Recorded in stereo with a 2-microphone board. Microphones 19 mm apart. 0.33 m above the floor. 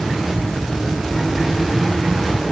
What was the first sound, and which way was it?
Only background noise.